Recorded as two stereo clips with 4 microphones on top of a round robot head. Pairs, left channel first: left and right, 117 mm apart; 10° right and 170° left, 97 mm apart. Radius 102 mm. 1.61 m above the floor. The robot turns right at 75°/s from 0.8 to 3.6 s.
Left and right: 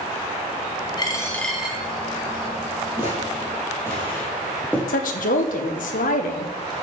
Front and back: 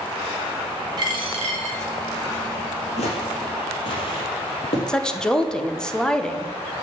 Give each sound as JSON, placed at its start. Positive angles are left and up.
{"t": 1.0, "sound": "a dropped coin", "azimuth_deg": 135, "distance_m": 2.5}
{"t": 3.0, "sound": "footsteps", "azimuth_deg": -15, "distance_m": 3.0}
{"t": 4.9, "sound": "a woman speaking", "azimuth_deg": 75, "distance_m": 1.3}